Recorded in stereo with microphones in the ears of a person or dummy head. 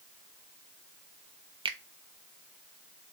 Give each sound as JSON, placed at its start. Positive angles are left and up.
{"t": 1.6, "sound": "a finger snap", "side_deg": -20, "distance_m": 0.6}